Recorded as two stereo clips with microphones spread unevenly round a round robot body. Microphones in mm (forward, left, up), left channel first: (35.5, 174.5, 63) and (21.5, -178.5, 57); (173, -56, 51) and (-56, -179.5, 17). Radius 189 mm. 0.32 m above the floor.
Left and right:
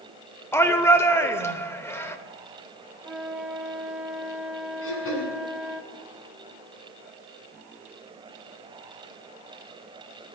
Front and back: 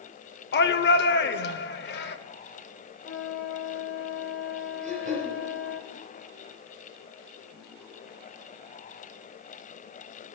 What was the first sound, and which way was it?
A shout, 10° left.